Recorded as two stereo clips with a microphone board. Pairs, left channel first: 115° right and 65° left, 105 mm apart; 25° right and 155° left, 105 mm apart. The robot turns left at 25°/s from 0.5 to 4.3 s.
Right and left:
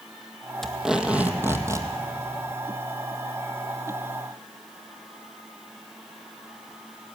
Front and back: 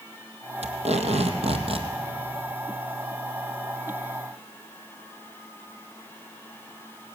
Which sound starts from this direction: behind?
Tape being pulled, at 0.6 s.